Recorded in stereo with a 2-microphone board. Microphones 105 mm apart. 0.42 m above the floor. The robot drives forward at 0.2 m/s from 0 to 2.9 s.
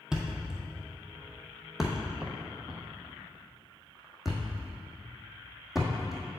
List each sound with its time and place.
0.1 s a thud: 5° right (ahead or behind), 1.2 m